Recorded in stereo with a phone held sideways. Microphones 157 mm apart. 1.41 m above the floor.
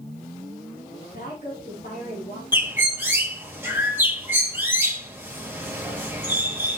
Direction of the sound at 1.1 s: 60° left (ahead or behind).